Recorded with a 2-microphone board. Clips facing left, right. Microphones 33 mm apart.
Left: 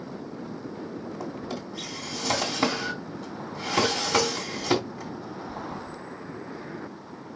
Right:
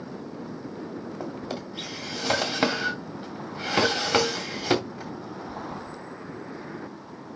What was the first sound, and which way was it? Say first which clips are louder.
A drawer: right 1 dB; 35° right (ahead or behind).